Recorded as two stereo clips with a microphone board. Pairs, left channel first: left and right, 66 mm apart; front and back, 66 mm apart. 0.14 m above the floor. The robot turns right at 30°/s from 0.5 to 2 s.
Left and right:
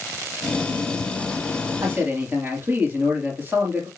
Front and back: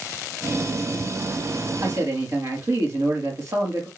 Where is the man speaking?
155° right, 3.5 m; by 3.9 s 145° right, 3.5 m.